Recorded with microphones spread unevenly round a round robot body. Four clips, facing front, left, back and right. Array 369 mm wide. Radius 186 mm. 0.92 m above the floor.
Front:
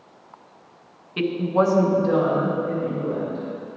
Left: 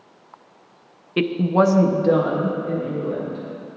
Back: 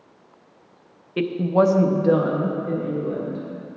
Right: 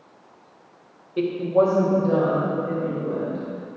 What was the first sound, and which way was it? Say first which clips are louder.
A woman speaking: left 1 dB, back 2 dB; 90° left.